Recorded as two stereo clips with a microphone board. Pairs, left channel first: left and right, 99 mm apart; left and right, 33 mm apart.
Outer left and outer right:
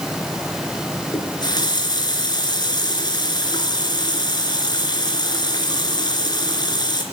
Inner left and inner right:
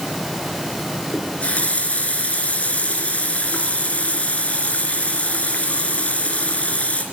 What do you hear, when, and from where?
1.1 s a running tap: 45° left (ahead or behind), 3.5 m